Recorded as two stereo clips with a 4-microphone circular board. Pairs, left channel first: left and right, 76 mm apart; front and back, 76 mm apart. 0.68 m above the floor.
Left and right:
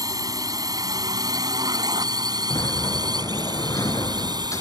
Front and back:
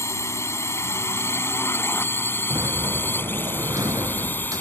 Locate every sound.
0.0 s a drone: 50° right; by 4.6 s 65° right
2.5 s a sliding door: 140° left